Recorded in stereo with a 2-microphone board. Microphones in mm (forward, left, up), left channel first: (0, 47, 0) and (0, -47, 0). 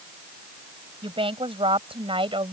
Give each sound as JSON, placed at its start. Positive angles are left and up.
{"t": 1.0, "sound": "a woman speaking", "side_deg": -85}